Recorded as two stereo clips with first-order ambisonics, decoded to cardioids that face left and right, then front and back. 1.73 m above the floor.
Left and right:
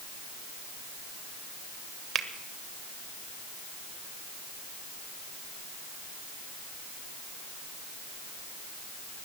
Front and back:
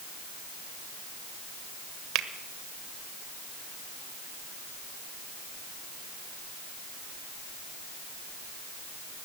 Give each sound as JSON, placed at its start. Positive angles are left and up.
{"t": 2.1, "sound": "a finger snap", "azimuth_deg": -150, "distance_m": 1.1}